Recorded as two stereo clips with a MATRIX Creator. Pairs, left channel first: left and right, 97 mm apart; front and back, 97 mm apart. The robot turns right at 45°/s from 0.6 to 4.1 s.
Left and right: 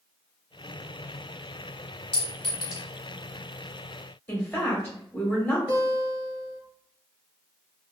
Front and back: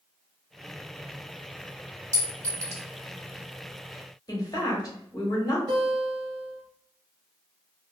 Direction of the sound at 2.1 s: 165° left.